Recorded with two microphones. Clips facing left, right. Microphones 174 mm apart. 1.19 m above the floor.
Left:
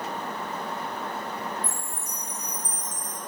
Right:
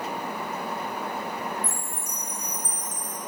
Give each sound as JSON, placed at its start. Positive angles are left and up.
{"t": 1.6, "sound": "a chime", "side_deg": -85, "distance_m": 7.5}